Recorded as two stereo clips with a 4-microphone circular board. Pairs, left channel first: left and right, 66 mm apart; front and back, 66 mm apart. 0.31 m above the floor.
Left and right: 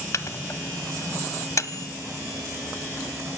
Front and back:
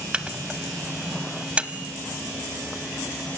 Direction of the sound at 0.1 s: 110° left.